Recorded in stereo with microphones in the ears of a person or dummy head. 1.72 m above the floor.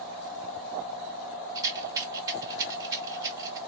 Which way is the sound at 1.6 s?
15° right (ahead or behind).